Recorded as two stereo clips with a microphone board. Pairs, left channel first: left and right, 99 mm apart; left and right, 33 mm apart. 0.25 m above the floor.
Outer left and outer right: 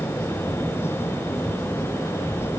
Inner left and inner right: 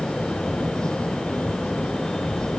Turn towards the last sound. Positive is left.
No sound to turn to.